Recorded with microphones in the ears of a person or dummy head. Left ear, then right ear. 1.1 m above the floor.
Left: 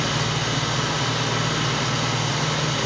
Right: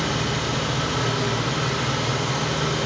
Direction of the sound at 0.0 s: 60° left (ahead or behind).